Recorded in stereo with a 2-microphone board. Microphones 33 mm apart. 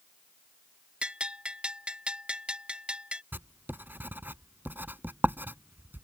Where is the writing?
75° right (ahead or behind).